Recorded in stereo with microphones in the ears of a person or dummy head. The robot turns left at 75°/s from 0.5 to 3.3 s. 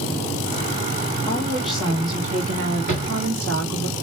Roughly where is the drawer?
Right.